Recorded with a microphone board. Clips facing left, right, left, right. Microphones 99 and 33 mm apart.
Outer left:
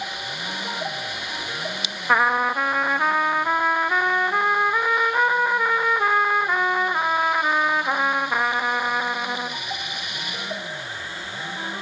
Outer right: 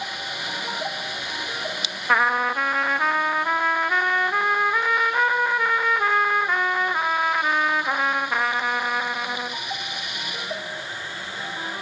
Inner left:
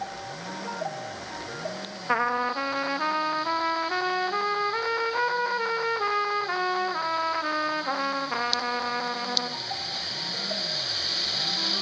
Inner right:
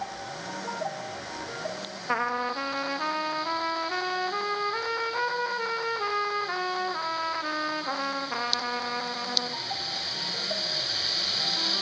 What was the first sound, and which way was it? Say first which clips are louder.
A trumpet: outer left 1 dB, inner left 3 dB; 10° left (ahead or behind).